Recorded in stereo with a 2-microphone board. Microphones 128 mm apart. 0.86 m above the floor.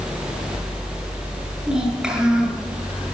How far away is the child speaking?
About 7 m.